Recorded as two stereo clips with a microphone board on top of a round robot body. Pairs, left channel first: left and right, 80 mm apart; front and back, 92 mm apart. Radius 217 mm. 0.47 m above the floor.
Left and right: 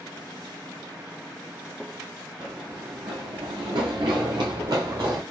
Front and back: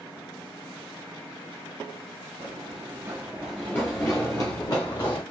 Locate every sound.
2.4 s running footsteps: 165° right, 0.7 m; by 5.2 s 45° right, 1.5 m